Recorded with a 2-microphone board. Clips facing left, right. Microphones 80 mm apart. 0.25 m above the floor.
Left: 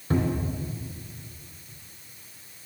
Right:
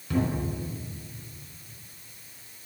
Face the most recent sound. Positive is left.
turn(degrees=35)  # may be behind; listen again after turning